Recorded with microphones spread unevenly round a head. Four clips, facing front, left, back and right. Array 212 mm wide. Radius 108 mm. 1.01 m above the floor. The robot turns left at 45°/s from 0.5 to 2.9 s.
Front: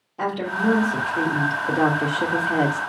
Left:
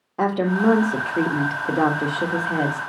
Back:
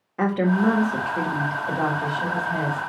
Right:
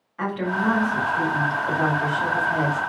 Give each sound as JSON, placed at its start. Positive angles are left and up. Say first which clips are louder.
{"t": 0.2, "sound": "a woman speaking", "louder": "left 5 dB, back 3 dB", "azimuth_deg": 120, "distance_m": 1.7}